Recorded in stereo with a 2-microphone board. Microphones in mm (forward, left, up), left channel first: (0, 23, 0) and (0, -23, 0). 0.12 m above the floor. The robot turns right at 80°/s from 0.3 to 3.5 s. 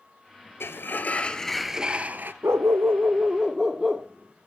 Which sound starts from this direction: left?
A sliding door, at 0.6 s.